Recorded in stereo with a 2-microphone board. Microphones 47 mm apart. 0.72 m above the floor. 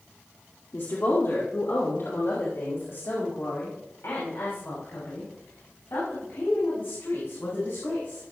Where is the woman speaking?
60° left (ahead or behind), 1.8 m; by 8.2 s 70° left (ahead or behind), 9.5 m.